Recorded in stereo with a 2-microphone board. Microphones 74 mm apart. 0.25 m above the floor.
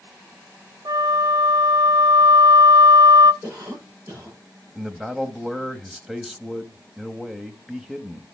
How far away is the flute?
About 0.8 m.